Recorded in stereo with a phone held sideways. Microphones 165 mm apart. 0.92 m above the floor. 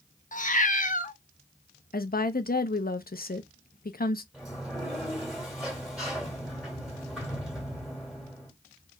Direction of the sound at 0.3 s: 50° left (ahead or behind).